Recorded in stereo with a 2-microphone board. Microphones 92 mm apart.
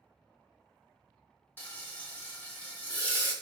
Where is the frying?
20° left (ahead or behind), 0.5 m.